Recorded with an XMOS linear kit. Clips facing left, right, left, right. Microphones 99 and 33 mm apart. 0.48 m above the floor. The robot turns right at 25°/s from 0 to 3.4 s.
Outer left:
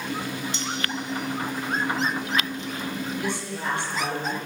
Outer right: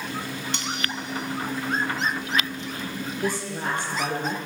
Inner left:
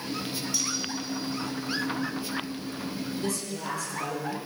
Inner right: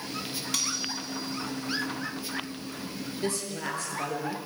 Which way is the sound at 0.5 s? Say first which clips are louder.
Outer left 1 dB, inner right 2 dB; 70° right (ahead or behind).